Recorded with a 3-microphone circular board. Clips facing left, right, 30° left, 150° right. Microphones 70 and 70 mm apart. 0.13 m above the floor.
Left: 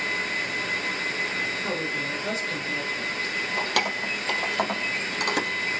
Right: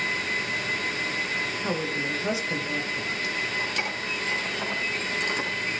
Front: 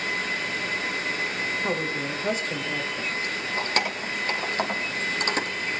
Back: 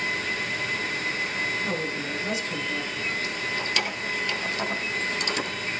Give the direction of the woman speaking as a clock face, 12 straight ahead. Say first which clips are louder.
Right 1 dB, front 2 dB; 12 o'clock.